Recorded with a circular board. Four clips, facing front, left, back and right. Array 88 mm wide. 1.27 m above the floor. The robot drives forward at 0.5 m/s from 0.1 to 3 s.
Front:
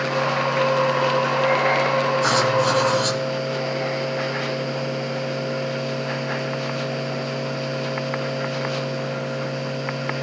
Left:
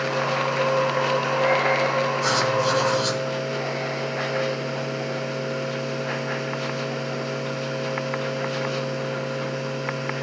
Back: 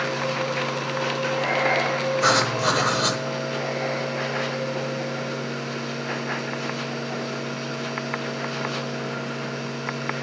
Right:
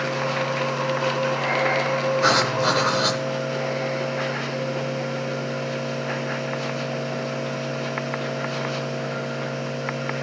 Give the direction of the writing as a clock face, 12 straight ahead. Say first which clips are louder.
Right 1 dB, front 2 dB; 4 o'clock.